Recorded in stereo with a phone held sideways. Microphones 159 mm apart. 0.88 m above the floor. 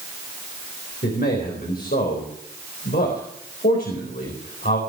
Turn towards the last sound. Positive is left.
turn(degrees=75)  # may be behind; listen again after turning